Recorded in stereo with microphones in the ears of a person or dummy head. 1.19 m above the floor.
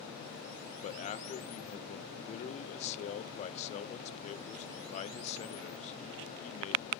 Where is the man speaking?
35° left (ahead or behind), 0.6 m.